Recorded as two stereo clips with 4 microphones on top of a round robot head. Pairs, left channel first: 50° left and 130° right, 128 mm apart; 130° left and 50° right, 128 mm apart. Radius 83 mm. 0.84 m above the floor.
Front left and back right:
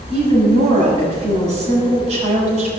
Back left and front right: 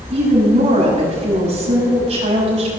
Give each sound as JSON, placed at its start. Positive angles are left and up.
{"t": 0.1, "sound": "a woman speaking", "azimuth_deg": -90, "distance_m": 6.5}